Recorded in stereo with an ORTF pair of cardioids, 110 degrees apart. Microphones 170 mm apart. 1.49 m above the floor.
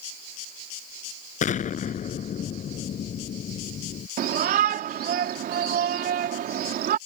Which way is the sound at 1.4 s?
45° left.